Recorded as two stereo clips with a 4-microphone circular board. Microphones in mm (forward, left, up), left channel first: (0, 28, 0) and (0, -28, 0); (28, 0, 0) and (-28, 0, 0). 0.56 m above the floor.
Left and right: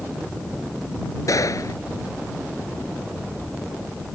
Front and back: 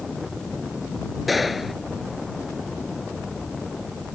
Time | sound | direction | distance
1.3 | a gunshot | 90° left | ?